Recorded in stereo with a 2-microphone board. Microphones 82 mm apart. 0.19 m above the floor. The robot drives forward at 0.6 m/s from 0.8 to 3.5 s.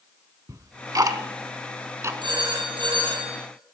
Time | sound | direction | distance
0.5 | ticking | 45° right (ahead or behind) | 0.9 m
2.2 | a phone ringing | 70° right (ahead or behind) | 5 m